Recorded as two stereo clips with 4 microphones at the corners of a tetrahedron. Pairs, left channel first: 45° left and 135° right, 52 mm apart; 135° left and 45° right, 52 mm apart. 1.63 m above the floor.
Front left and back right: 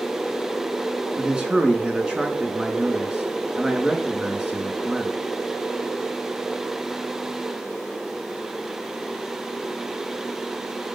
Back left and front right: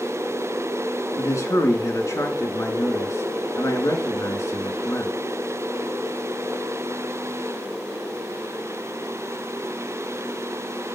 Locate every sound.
1.2 s a man speaking: 155° left, 3.5 m